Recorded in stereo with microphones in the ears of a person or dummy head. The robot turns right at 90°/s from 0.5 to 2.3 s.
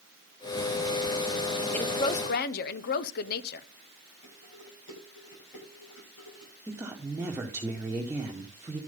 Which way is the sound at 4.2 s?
65° left (ahead or behind).